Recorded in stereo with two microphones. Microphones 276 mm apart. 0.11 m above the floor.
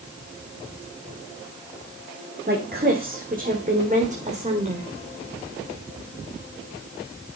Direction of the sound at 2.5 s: 35° right (ahead or behind).